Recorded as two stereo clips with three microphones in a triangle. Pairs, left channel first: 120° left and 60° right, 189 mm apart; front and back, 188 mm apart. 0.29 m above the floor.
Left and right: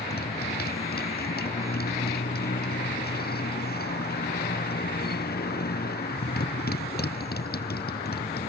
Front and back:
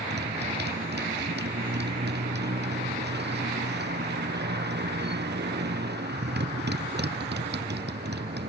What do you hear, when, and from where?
0.0 s a motorcycle: 155° left